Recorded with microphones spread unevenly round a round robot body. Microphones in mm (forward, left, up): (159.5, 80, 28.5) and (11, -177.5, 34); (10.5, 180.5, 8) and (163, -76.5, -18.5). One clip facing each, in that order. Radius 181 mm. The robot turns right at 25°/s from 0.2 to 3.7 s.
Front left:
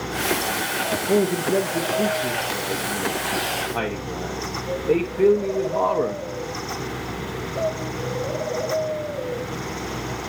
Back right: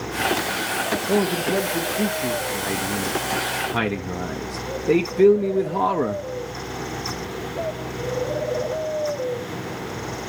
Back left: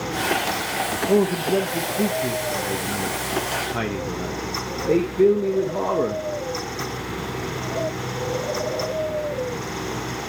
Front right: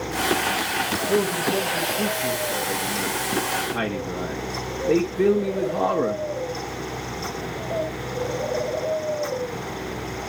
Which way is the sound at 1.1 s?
140° left.